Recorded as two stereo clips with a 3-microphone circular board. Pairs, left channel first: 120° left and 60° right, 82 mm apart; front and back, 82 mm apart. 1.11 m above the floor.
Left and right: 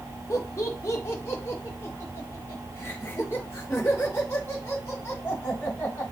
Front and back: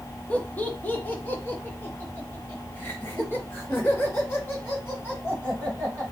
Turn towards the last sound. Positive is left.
turn(degrees=60)